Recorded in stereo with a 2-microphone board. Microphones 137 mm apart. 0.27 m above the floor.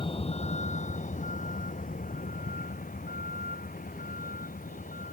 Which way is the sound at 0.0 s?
40° left (ahead or behind).